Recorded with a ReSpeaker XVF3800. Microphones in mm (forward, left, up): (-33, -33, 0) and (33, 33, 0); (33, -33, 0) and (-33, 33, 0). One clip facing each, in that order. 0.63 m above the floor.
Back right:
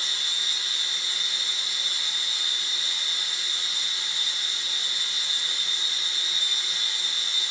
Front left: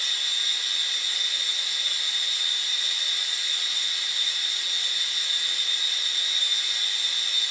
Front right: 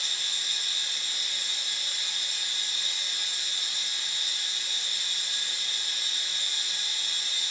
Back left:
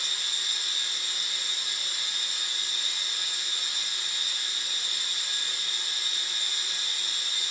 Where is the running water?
160° left, 1.6 m.